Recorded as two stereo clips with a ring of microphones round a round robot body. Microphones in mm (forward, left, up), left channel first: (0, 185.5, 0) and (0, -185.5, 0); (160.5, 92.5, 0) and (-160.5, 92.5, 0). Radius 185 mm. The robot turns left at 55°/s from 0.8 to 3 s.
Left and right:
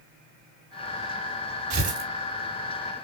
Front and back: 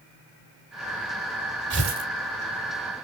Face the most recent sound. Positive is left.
turn(degrees=160)